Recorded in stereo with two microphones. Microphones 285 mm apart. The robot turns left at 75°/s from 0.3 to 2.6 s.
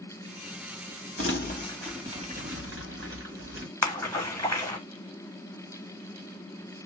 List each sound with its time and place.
1.2 s crumpling: 55° left (ahead or behind), 1.8 m; by 3.7 s 50° right (ahead or behind), 1.8 m
3.8 s a splash: 10° left (ahead or behind), 1.1 m